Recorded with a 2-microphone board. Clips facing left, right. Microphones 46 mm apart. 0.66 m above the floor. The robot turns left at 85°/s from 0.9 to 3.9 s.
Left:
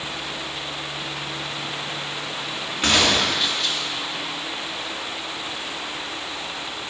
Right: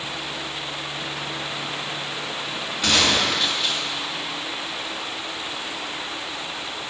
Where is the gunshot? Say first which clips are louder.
Left 1 dB; 55° left, 1.5 m; by 3.8 s 30° right, 1.5 m.